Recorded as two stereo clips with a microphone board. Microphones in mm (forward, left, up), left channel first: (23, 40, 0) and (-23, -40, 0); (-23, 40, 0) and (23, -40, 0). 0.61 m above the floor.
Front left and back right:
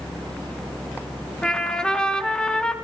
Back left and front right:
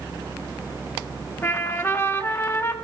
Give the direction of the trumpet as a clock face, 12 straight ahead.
8 o'clock.